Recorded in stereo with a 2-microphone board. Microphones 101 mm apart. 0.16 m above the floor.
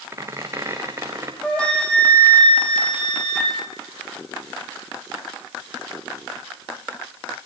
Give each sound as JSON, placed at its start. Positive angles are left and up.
{"t": 0.1, "sound": "a squeak", "side_deg": -30, "distance_m": 3.5}
{"t": 1.4, "sound": "a flute", "side_deg": 10, "distance_m": 5.5}